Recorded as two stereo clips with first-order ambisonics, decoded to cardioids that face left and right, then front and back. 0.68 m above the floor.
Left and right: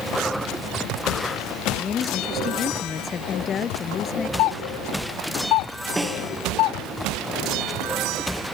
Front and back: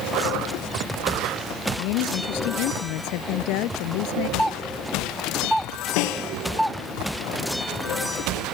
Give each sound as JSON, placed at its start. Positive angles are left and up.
{"t": 1.8, "sound": "a woman speaking", "azimuth_deg": 25}
{"t": 4.4, "sound": "a doorbell", "azimuth_deg": 90}
{"t": 6.0, "sound": "a snare drum", "azimuth_deg": -10}